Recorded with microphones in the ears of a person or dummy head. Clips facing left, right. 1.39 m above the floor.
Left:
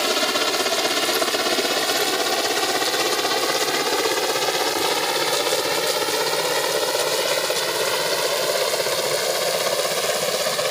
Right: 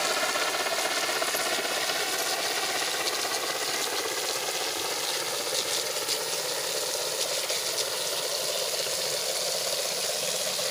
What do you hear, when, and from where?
0.0 s a helicopter: 55° left (ahead or behind); by 10.7 s 75° left (ahead or behind)